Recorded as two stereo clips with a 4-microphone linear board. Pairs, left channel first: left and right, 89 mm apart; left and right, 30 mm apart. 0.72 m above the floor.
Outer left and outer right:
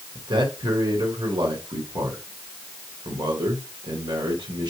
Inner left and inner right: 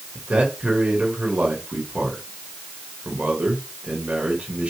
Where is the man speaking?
60° right (ahead or behind), 3.5 m.